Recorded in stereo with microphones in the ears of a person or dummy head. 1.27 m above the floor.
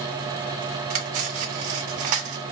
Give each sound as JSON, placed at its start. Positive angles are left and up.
{"t": 0.9, "sound": "cutlery clinking", "side_deg": -45, "distance_m": 0.7}